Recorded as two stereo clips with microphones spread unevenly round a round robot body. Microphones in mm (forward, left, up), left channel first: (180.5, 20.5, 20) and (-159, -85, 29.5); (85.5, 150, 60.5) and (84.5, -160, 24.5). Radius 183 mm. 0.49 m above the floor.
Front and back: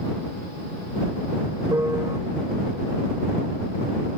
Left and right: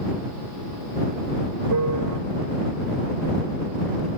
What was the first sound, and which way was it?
A piano, 80° right.